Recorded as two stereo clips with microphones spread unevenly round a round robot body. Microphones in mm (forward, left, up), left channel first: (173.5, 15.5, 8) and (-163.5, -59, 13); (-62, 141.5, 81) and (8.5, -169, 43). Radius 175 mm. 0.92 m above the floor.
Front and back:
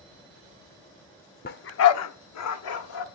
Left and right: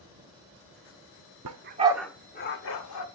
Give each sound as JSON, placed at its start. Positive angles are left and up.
{"t": 1.4, "sound": "a dog barking", "azimuth_deg": -45, "distance_m": 0.6}